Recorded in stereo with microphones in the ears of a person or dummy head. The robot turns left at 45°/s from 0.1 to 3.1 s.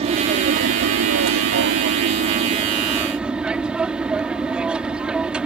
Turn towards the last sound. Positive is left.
turn(degrees=-175)